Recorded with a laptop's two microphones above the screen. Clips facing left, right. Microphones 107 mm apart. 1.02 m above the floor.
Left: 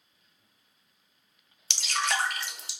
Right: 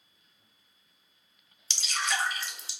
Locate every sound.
1.7 s dripping: 65° left (ahead or behind), 0.7 m